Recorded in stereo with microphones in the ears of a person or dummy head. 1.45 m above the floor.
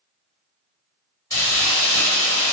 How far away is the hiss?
About 1.6 m.